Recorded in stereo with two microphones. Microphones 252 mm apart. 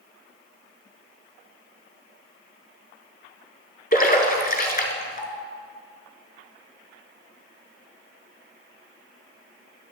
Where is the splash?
35° left (ahead or behind), 1.2 m.